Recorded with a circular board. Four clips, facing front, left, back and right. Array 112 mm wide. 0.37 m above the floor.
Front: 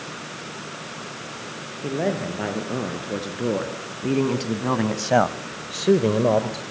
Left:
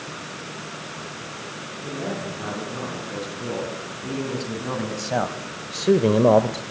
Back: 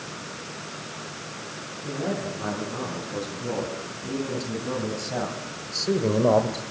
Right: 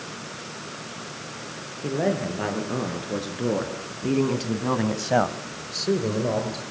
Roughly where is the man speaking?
Ahead right.